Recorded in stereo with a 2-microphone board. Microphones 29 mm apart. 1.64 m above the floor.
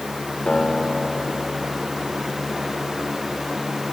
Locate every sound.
0.5 s a guitar: 50° left (ahead or behind), 2.5 m